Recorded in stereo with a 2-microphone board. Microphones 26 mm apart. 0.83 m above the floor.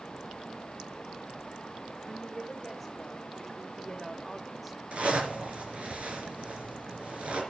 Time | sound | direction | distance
2.0 | a woman speaking | centre (ahead or behind) | 3 m
4.9 | a zipper | 55° right (ahead or behind) | 4 m